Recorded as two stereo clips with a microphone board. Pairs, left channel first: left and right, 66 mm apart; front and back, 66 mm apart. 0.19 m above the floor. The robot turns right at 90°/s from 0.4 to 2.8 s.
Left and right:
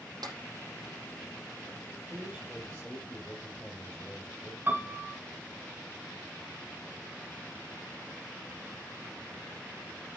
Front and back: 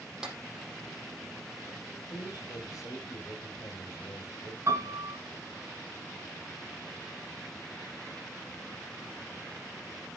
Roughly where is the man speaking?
Ahead right.